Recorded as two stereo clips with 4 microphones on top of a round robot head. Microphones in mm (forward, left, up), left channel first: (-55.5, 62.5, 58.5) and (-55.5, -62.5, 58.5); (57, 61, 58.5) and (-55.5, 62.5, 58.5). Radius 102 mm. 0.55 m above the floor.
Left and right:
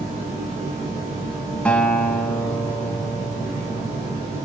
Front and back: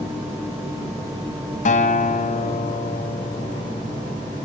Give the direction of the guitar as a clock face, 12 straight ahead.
12 o'clock.